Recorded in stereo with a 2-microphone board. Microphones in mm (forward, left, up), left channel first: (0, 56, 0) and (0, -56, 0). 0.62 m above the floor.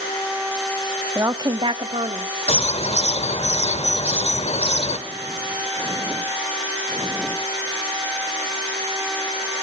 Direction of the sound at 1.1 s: 20° right (ahead or behind).